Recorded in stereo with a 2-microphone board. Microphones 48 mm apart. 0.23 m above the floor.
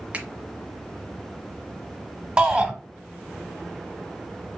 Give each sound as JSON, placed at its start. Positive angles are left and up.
{"t": 0.1, "sound": "a finger snap", "side_deg": -30, "distance_m": 1.2}
{"t": 2.4, "sound": "a shout", "side_deg": -20, "distance_m": 1.2}